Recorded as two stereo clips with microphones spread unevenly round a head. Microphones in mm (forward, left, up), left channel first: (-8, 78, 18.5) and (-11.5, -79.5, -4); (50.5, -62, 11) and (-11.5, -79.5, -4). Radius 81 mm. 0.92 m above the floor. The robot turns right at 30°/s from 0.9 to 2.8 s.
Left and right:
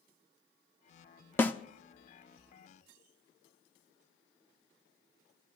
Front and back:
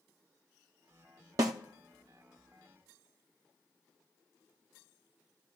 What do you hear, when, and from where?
1.4 s a snare drum: 155° left, 0.5 m; by 1.5 s 160° left, 0.5 m